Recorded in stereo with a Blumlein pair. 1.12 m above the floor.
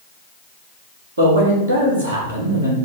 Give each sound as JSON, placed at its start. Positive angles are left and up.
{"t": 1.2, "sound": "a man speaking", "azimuth_deg": -70, "distance_m": 1.5}